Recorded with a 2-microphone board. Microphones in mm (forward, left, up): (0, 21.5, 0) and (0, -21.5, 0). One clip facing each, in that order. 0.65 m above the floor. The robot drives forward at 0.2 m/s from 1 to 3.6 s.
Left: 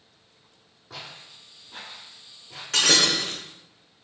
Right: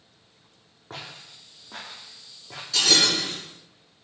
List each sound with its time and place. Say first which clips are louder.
0.9 s footsteps: right 1 dB; 45° right (ahead or behind), 1.1 m; by 2.6 s 65° right (ahead or behind), 1.6 m
2.7 s breaking glass: left 1 dB; 55° left (ahead or behind), 1.0 m